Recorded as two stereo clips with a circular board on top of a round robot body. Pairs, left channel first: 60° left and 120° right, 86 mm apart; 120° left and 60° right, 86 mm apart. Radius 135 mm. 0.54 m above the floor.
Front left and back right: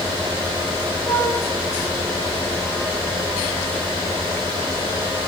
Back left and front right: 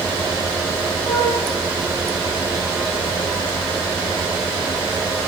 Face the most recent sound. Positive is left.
turn(degrees=125)